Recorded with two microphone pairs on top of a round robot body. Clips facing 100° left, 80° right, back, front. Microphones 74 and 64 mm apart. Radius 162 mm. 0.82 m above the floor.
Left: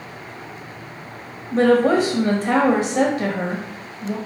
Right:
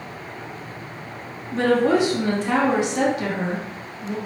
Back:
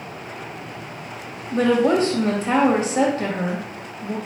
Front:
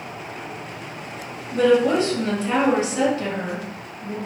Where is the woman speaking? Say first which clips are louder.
Left 3 dB, front 1 dB; 130° left, 1.8 m.